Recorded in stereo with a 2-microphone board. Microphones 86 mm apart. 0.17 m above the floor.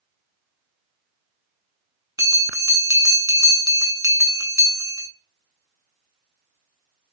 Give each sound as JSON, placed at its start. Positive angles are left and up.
{"t": 2.2, "sound": "a bell", "side_deg": -45, "distance_m": 0.5}